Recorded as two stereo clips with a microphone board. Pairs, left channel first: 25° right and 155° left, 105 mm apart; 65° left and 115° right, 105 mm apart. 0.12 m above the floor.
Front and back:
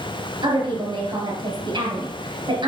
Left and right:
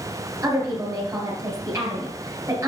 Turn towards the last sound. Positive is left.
turn(degrees=180)